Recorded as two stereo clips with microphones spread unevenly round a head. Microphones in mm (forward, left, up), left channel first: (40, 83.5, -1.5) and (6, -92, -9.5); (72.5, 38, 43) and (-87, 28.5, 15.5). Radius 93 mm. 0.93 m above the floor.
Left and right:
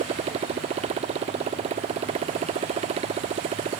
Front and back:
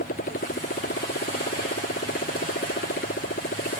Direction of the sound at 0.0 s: 45° right.